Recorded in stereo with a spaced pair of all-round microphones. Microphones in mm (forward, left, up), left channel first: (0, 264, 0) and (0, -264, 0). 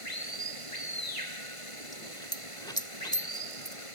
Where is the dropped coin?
5° left (ahead or behind).